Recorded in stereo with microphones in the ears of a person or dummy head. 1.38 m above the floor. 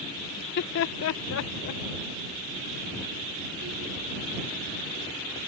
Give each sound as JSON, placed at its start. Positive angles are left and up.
{"t": 0.4, "sound": "laughter", "side_deg": 55}